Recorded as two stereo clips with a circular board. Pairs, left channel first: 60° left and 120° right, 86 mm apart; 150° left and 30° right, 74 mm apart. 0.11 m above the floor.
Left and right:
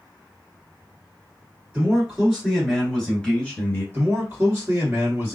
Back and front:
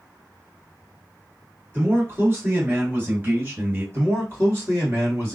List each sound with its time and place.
1.7 s a man speaking: 55° right, 1.8 m; by 3.8 s 10° left, 1.8 m
3.9 s a man speaking: 70° right, 1.8 m